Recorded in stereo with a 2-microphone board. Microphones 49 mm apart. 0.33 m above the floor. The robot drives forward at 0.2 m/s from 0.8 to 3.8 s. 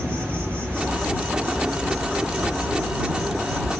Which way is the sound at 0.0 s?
45° right (ahead or behind).